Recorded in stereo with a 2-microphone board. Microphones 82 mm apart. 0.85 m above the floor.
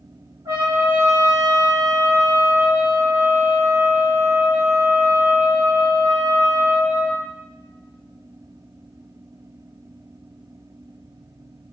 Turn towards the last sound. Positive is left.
turn(degrees=-40)  # may be behind; listen again after turning